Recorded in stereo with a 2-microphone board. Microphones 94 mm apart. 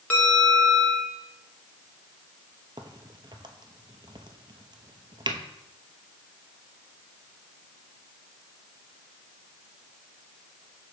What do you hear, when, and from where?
0.1 s a bell: 15° left (ahead or behind), 1.2 m
2.8 s a crack: 55° right (ahead or behind), 0.8 m